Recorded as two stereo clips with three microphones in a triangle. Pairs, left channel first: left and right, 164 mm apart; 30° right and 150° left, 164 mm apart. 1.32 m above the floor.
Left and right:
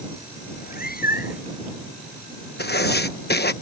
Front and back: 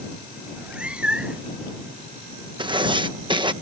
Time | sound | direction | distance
0.5 | a cat meowing | 65° left | ?
2.6 | writing | 90° left | ?